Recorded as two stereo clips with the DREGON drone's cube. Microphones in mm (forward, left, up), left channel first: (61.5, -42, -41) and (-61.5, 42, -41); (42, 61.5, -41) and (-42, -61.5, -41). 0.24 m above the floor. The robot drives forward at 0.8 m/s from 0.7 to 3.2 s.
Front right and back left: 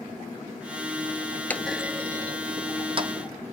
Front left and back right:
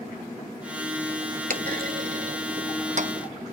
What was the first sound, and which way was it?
A clunk, 110° right.